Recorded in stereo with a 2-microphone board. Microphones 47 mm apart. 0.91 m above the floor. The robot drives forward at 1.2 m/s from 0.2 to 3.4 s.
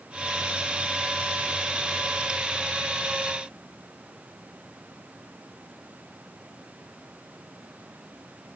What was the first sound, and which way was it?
Only background noise.